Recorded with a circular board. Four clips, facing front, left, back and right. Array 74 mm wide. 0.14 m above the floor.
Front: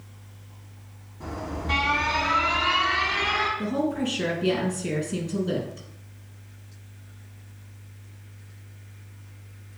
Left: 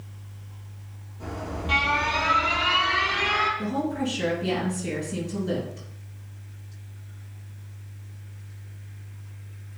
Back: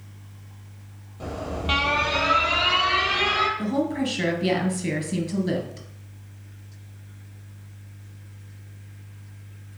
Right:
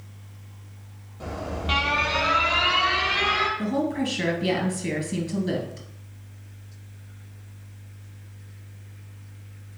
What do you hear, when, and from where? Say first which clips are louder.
1.2 s an alarm: right 2 dB, back 2 dB; 165° right, 2 m
3.6 s a woman speaking: right 2 dB, back 1 dB; 160° right, 3 m